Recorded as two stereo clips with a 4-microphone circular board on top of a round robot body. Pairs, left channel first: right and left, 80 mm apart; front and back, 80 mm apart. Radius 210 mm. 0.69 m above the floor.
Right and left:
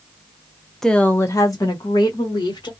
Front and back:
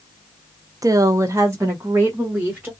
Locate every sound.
0.8 s a woman speaking: 175° right, 0.6 m; by 2.7 s 110° right, 1.6 m